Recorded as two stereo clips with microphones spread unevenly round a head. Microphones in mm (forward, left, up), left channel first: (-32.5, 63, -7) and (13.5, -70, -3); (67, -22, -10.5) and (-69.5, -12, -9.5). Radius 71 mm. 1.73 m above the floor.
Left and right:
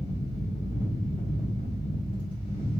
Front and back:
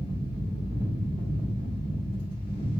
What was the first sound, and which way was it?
A fan, 55° left.